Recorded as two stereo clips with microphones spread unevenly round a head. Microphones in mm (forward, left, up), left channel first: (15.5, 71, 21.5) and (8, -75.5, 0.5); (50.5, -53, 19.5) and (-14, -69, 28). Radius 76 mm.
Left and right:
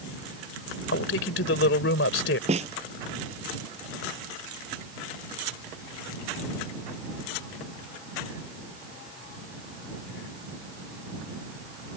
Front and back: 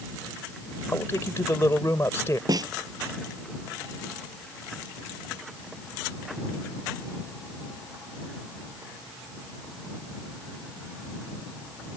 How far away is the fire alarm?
I don't hear a fire alarm.